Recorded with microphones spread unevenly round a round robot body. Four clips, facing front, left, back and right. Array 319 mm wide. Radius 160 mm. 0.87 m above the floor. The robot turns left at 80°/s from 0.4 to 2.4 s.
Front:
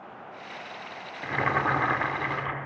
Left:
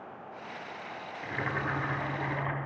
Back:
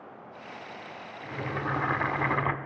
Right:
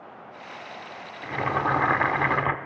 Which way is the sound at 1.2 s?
Straight ahead.